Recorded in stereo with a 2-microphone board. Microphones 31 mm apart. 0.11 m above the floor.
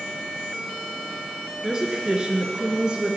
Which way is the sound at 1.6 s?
20° right (ahead or behind).